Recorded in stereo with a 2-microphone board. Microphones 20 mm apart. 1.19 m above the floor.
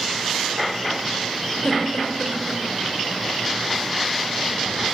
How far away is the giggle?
About 5 m.